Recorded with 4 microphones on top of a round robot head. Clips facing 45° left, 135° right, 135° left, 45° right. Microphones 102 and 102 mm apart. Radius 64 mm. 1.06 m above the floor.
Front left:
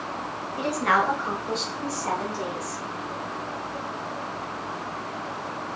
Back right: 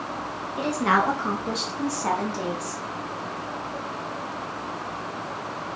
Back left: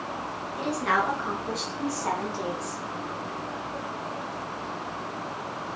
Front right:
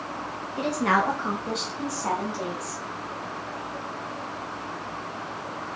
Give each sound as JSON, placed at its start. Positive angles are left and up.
{"t": 0.6, "sound": "a woman speaking", "azimuth_deg": -65, "distance_m": 1.5}